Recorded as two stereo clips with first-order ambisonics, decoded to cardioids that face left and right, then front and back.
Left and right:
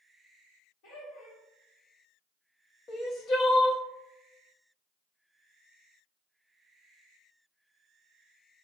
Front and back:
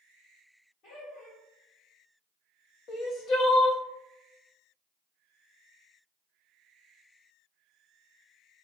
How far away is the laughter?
About 1.5 m.